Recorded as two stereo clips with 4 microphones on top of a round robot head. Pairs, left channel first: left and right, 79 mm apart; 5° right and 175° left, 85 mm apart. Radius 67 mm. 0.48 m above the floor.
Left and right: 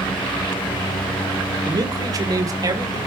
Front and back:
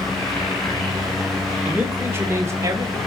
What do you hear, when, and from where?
1.6 s a man speaking: 115° right, 1.7 m; by 3.0 s 130° right, 2.5 m